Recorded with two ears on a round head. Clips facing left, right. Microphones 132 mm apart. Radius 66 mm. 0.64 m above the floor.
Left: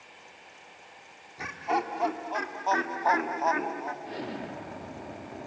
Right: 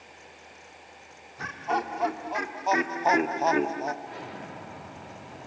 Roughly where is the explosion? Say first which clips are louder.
Left 3 dB; left.